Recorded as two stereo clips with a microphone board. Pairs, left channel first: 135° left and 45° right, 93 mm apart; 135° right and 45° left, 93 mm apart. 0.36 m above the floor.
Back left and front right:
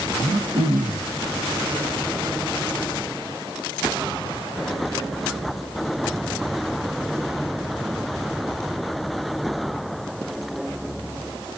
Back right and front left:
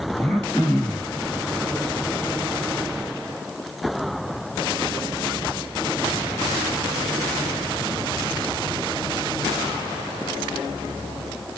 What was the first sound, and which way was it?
Throat clearing, 55° right.